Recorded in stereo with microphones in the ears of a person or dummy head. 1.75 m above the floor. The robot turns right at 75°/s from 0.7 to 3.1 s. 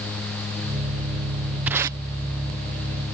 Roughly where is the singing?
No singing in this recording.